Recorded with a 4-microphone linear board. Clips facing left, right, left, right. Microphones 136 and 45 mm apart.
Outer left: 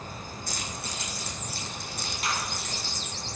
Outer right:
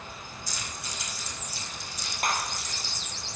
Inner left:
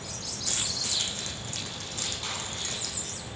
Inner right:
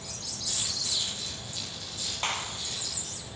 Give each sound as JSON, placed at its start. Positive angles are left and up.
{"t": 0.5, "sound": "keys jangling", "side_deg": 65, "distance_m": 7.5}
{"t": 2.2, "sound": "a clap", "side_deg": -55, "distance_m": 3.0}